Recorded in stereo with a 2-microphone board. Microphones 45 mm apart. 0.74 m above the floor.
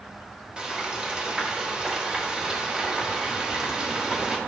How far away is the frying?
About 1.1 m.